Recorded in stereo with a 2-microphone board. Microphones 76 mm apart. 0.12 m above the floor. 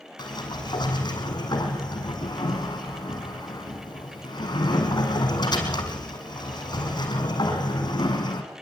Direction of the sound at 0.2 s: 70° left (ahead or behind).